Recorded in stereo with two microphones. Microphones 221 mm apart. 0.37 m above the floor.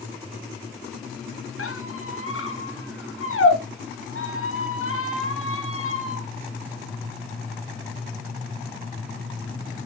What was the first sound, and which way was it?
A squeak, 75° left (ahead or behind).